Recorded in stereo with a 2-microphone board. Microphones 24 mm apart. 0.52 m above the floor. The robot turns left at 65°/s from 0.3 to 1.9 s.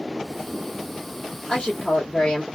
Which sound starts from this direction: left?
A woman speaking, at 1.5 s.